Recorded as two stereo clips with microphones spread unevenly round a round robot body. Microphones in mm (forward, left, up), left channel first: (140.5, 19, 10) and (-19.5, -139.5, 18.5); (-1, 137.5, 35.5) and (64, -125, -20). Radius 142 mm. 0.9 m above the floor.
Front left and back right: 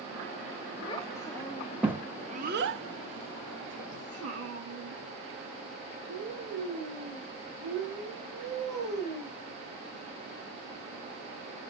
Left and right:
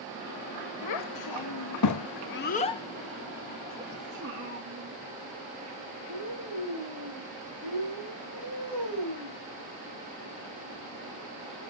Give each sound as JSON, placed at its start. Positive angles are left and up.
{"t": 0.8, "sound": "a child speaking", "azimuth_deg": 115, "distance_m": 1.1}